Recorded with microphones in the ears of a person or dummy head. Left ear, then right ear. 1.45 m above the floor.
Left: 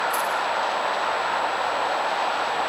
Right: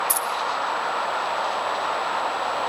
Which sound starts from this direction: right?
Keys jangling, at 0.1 s.